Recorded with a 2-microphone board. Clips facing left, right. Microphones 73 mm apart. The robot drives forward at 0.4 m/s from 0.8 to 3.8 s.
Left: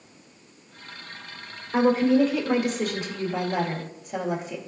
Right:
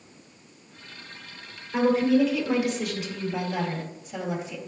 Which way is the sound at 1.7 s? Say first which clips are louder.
Left 1 dB; 40° left (ahead or behind).